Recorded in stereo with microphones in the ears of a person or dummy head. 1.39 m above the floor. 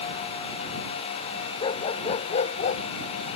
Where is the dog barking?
35° left (ahead or behind); by 2.8 s 45° left (ahead or behind).